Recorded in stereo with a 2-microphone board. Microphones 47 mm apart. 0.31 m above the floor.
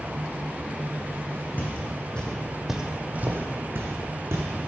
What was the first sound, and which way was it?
Footsteps, 35° left (ahead or behind).